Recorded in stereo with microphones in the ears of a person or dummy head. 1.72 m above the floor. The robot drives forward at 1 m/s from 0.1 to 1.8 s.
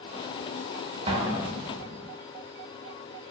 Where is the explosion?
35° right (ahead or behind), 0.9 m; by 2.1 s 20° right (ahead or behind), 1.6 m.